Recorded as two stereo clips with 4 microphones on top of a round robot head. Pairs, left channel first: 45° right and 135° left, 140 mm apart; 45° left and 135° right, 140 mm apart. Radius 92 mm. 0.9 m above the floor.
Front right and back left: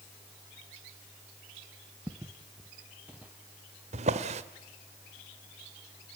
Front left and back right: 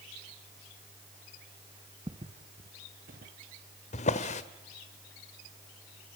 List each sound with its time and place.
2.1 s footsteps: 170° right, 0.9 m; by 3.3 s 145° right, 1.6 m
3.9 s a drawer: 90° left, 1.4 m